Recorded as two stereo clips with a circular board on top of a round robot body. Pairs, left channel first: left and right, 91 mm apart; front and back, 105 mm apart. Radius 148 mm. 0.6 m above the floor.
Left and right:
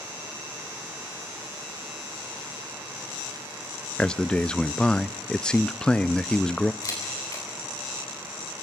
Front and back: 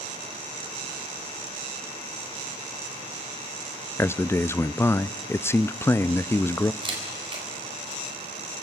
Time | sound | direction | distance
4.0 | a man speaking | 20° left | 0.6 m
6.8 | a camera shutter | 140° left | 4.5 m